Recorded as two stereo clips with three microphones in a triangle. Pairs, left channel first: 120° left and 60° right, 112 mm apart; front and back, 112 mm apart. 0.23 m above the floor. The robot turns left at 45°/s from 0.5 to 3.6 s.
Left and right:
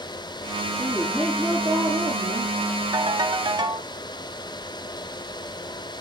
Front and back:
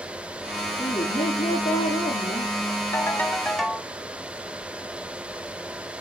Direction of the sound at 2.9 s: 55° right.